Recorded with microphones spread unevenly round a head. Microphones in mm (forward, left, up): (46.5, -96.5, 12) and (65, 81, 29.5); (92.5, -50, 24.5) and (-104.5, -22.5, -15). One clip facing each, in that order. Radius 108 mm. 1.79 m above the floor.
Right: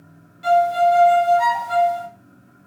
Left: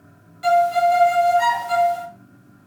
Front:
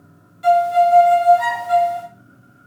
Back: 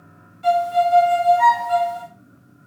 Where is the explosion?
I don't hear an explosion.